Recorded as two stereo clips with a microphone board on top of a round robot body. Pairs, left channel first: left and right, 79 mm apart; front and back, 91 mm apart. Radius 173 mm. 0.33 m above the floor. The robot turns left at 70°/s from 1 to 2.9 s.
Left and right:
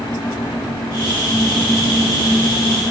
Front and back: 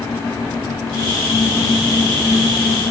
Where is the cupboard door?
I don't hear a cupboard door.